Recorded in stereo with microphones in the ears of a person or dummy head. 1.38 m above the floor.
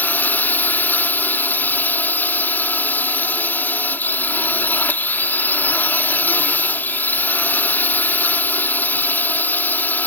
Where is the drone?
10° left (ahead or behind).